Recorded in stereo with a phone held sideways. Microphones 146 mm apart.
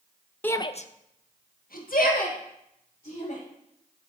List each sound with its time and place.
0.4 s a shout: 10° left (ahead or behind), 0.6 m; by 3.4 s 60° left (ahead or behind), 3 m